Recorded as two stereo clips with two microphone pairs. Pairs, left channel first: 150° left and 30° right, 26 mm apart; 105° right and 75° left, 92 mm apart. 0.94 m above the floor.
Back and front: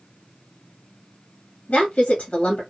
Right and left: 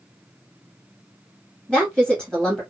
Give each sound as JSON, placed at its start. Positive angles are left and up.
{"t": 1.7, "sound": "a woman speaking", "azimuth_deg": 140, "distance_m": 1.5}